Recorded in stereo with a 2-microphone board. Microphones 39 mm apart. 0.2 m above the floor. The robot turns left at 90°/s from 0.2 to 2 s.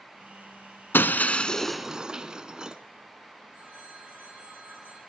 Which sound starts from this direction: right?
A phone ringing, at 3.5 s.